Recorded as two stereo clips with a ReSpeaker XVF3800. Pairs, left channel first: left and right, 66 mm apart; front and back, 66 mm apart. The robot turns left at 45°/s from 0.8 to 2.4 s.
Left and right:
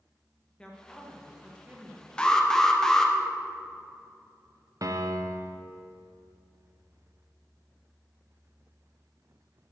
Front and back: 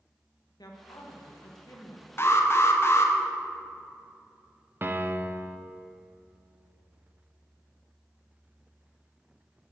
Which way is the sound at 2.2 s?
20° left.